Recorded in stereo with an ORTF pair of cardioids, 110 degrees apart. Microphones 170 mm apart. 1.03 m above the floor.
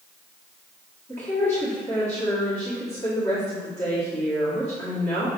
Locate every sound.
1.1 s a woman speaking: 15° left, 2.0 m